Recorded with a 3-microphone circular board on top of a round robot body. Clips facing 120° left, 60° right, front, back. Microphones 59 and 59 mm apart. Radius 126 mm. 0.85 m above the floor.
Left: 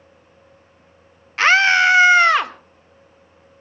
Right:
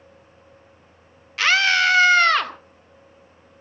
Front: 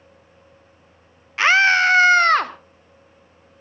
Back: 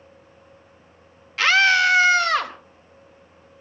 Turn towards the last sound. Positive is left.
turn(degrees=45)